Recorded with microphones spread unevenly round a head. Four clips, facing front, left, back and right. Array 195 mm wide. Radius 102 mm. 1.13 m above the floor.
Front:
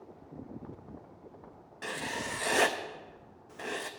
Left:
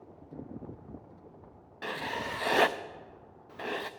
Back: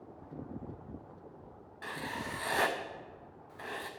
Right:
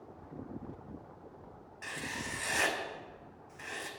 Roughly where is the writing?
Ahead left.